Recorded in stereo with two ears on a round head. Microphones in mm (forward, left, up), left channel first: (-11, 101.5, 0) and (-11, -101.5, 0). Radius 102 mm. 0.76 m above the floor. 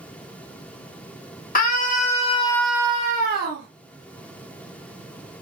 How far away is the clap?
No clap in this recording.